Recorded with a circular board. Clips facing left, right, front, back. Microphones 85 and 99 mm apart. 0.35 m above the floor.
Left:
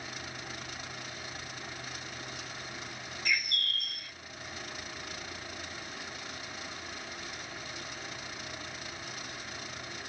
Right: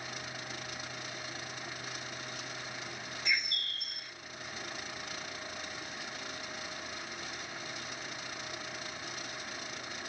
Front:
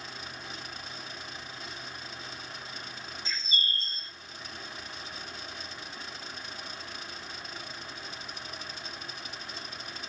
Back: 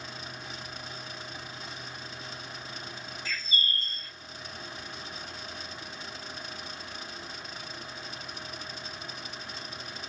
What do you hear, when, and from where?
3.2 s a bird: 45° right, 0.7 m